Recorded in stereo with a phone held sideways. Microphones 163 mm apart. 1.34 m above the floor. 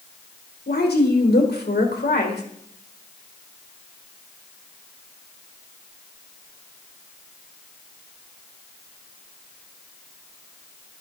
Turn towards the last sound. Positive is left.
turn(degrees=80)